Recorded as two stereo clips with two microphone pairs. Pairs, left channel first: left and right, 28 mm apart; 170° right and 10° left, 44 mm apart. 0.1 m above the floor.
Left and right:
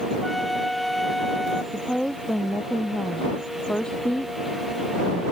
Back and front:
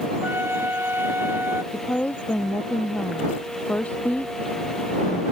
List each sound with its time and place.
0.2 s a flute: straight ahead
1.7 s a woman speaking: 140° left